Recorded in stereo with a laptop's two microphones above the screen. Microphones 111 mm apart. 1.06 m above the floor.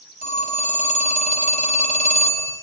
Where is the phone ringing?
85° left, 5 m.